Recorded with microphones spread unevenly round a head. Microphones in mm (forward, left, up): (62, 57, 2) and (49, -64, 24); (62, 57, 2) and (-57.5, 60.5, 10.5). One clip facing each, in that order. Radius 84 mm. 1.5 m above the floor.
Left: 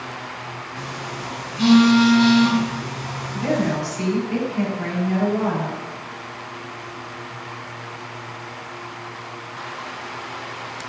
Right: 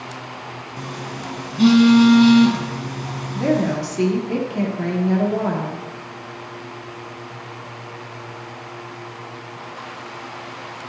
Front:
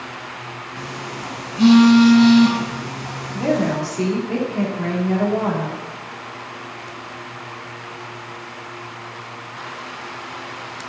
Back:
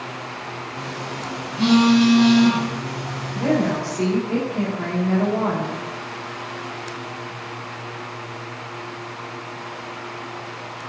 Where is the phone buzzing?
75° right, 3 m.